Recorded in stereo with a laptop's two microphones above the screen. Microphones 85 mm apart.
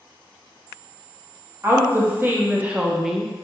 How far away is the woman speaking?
About 1.4 m.